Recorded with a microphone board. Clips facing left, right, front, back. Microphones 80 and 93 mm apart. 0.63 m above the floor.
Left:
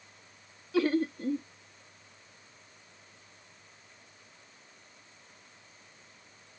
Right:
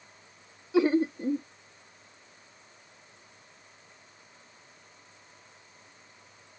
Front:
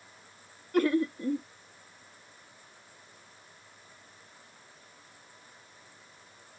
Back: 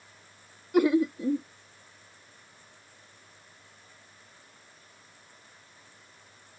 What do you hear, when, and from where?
0.7 s laughter: 120° right